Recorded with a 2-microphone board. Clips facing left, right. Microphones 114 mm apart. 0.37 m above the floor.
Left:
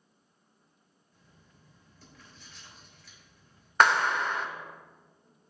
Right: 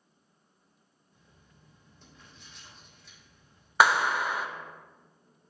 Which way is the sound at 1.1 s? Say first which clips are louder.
Even; 25° right (ahead or behind).